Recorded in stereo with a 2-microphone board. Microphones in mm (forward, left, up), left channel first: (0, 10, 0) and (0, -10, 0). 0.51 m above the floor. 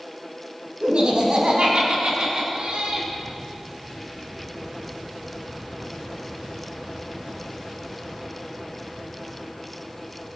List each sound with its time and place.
0.8 s laughter: 75° right (ahead or behind), 4 m